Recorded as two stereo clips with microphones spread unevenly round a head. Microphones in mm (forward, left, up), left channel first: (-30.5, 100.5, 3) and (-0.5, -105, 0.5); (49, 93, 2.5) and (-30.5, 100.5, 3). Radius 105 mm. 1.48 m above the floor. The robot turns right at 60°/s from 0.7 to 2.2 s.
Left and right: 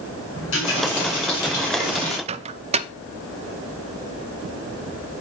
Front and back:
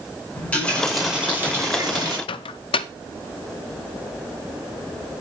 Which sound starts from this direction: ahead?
A microwave, at 2.3 s.